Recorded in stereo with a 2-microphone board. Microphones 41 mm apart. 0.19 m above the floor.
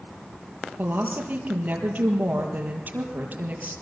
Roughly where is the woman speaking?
Right.